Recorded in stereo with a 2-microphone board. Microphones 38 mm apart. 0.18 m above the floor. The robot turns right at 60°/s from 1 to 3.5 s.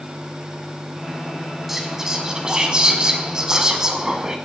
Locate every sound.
1.7 s whispering: 10° right (ahead or behind), 1.7 m; by 4.4 s 15° right (ahead or behind), 1.7 m